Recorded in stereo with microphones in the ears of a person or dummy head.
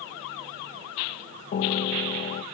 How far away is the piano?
About 1.2 m.